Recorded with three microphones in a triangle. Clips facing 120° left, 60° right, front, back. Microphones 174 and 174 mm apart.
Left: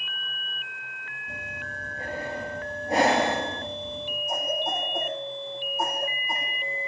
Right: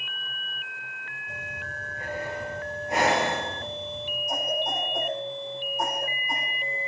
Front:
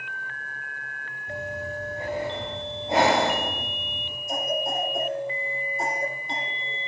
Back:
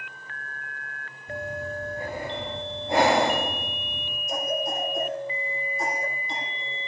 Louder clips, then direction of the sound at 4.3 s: Even, even; 40° left.